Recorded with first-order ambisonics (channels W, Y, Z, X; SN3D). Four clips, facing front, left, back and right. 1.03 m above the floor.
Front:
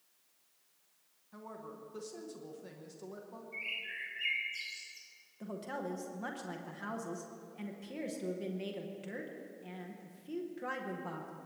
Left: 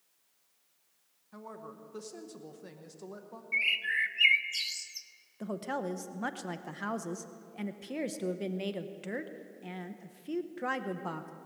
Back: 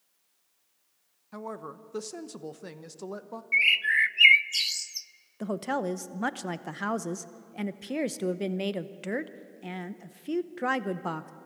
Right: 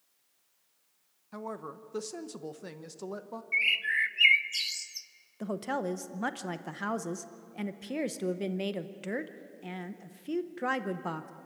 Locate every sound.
1.3 s a woman speaking: 145° right, 0.9 m
3.5 s a bird: 170° right, 0.5 m
5.4 s a woman speaking: 165° right, 0.8 m